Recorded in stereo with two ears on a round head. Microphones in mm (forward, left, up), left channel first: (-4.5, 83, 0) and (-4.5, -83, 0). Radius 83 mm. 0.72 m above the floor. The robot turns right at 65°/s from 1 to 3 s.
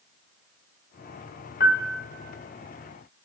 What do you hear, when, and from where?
1.6 s a piano: 125° left, 0.6 m; by 2.1 s 160° left, 0.6 m